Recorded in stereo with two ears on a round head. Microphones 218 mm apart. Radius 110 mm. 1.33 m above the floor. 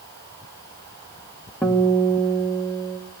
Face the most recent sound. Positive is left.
turn(degrees=5)  # may be behind; listen again after turning